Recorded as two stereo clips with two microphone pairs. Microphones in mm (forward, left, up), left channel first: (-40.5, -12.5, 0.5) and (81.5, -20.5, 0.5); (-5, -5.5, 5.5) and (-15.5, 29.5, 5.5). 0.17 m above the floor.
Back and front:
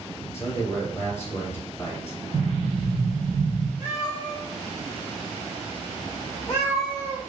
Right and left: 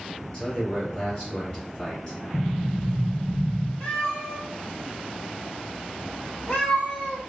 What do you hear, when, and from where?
0.3 s a man speaking: 125° right, 2 m
2.3 s an explosion: 90° right, 1.2 m
3.8 s a cat meowing: 115° right, 1.8 m